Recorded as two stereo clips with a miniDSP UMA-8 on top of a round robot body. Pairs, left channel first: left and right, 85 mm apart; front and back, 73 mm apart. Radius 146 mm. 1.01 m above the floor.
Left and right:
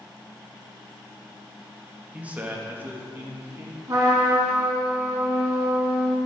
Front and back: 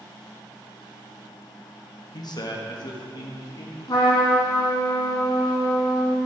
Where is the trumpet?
35° right, 2.5 m.